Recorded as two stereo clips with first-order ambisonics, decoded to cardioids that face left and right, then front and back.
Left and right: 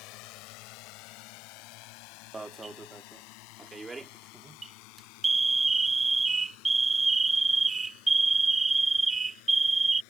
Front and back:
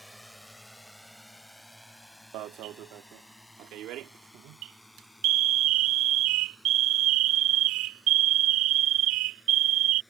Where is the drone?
90° left; by 10.1 s 85° left.